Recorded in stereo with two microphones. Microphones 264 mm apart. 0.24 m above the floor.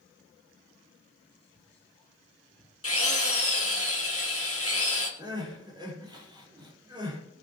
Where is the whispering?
5° left (ahead or behind), 6 m.